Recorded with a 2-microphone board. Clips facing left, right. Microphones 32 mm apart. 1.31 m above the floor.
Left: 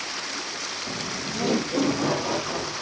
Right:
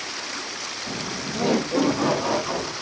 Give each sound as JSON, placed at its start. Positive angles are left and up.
{"t": 0.9, "sound": "laughter", "side_deg": -20, "distance_m": 0.7}